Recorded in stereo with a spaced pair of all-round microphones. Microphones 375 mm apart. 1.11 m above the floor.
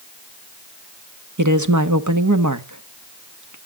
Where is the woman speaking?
50° right (ahead or behind), 1.3 m.